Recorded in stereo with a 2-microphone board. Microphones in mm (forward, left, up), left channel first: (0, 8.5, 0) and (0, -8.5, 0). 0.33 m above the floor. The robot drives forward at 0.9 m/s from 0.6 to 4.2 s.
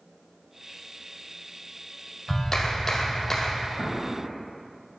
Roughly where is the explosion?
Left.